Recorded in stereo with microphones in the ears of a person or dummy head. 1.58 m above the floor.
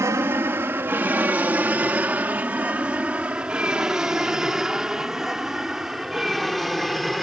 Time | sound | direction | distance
0.0 | an aircraft | 15° right (ahead or behind) | ?